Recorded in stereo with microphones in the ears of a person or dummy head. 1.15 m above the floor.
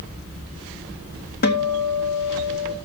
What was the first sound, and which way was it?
A guitar, 55° left (ahead or behind).